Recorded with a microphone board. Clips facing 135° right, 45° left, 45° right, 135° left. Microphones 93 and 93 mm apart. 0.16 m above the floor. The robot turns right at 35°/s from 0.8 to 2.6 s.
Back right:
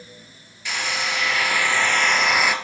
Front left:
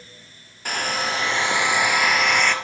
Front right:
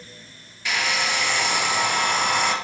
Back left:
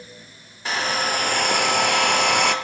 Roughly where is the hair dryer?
Left.